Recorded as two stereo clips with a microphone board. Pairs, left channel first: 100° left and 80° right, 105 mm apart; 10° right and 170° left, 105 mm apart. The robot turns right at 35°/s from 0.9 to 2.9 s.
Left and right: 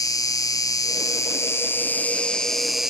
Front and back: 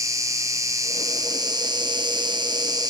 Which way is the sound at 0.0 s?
130° left.